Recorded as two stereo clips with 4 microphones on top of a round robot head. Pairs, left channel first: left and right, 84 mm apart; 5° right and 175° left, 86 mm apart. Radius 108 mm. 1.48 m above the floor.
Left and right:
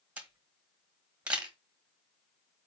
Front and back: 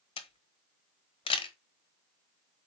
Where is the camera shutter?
15° right, 1.2 m.